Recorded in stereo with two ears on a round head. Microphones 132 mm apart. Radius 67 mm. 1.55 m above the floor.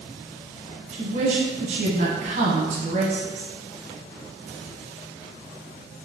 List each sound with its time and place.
0.9 s a woman speaking: 45° right (ahead or behind), 1.0 m